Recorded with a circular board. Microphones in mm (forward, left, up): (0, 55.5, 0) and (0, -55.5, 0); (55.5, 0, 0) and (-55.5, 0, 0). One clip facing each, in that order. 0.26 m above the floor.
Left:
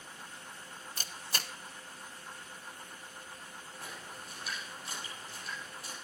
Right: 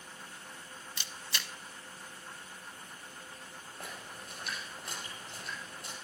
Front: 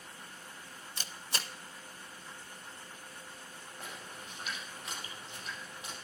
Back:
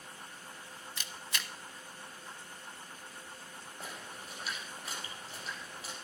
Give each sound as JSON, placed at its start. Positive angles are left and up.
{"t": 1.0, "sound": "a camera shutter", "azimuth_deg": 50, "distance_m": 0.6}
{"t": 3.8, "sound": "a splash", "azimuth_deg": -125, "distance_m": 5.0}